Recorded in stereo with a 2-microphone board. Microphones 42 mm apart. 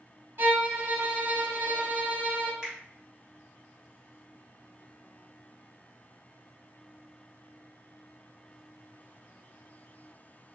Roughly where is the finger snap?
Centre.